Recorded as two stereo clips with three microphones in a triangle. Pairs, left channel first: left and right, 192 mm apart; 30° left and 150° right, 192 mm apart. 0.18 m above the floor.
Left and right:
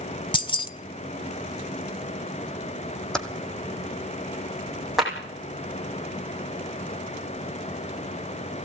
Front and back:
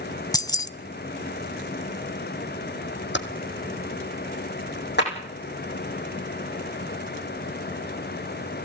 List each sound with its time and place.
0.3 s keys jangling: 70° left, 0.7 m
3.1 s typing on a keyboard: 5° left, 1.7 m
5.0 s a clap: straight ahead, 8 m